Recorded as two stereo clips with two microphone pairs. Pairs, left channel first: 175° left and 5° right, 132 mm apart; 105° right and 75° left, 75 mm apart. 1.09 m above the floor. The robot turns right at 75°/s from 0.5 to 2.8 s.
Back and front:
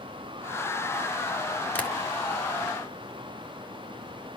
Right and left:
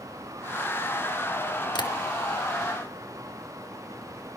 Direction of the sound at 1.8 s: 105° right.